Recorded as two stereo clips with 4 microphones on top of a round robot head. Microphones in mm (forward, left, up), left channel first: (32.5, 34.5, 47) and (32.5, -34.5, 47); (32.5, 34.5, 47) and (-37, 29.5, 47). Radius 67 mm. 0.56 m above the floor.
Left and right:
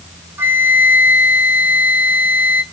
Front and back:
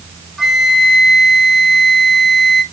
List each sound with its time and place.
0.4 s a flute: 90° right, 1.2 m